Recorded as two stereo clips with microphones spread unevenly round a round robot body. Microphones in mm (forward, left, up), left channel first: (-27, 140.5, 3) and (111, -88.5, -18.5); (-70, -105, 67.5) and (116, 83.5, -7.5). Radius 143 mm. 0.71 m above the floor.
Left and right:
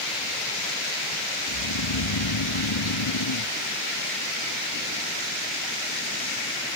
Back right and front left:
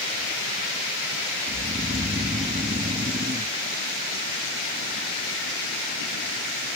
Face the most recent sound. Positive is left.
turn(degrees=120)